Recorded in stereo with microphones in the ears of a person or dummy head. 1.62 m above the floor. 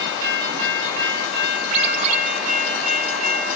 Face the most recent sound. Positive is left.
turn(degrees=-35)  # may be behind; listen again after turning